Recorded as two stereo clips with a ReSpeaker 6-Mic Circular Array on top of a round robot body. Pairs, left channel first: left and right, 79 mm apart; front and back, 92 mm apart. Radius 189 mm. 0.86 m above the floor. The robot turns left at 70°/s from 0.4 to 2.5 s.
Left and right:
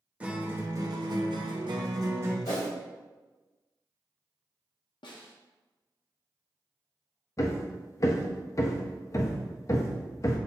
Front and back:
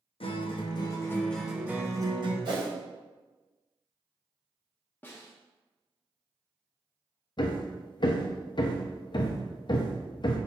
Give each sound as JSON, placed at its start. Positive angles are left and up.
{"t": 0.2, "sound": "a guitar", "azimuth_deg": -15, "distance_m": 1.1}
{"t": 2.5, "sound": "a whoosh", "azimuth_deg": 140, "distance_m": 1.0}
{"t": 5.0, "sound": "a snare drum", "azimuth_deg": 70, "distance_m": 0.8}
{"t": 7.4, "sound": "hammering", "azimuth_deg": 40, "distance_m": 0.7}